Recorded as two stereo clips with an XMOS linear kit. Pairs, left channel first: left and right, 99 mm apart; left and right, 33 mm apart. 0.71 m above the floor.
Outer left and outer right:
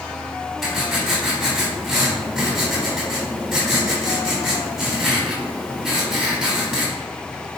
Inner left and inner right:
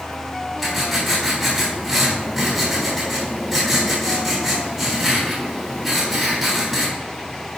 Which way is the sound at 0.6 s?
Centre (ahead or behind).